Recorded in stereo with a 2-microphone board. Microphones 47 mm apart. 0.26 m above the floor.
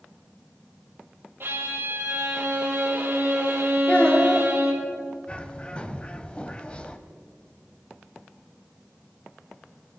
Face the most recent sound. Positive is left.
turn(degrees=25)  # may be behind; listen again after turning